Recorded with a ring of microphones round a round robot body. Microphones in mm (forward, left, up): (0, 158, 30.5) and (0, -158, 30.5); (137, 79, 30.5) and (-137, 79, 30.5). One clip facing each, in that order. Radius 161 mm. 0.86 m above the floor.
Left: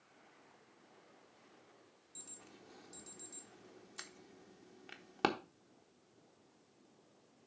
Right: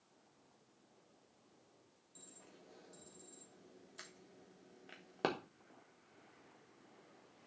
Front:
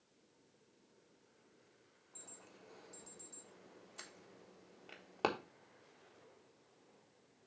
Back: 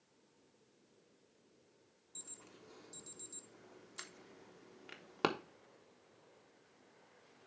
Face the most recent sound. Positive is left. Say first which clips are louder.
# left 2 dB, back 1 dB
turn(degrees=140)